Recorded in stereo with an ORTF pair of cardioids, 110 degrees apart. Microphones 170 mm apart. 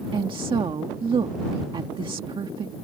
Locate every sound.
0.1 s a woman speaking: 30° right